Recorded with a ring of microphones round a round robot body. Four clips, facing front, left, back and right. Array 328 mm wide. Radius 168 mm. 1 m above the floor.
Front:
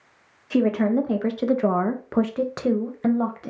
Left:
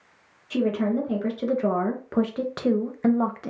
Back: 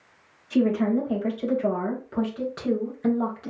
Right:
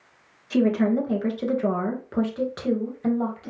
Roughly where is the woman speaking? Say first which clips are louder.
Right 3 dB, front 2 dB; ahead.